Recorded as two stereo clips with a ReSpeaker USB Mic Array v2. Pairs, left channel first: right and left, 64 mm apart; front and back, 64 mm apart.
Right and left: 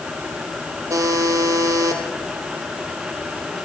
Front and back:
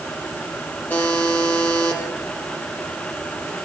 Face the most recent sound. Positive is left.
turn(degrees=65)